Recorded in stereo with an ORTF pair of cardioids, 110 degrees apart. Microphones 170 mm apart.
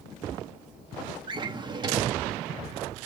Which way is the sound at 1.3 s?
30° right.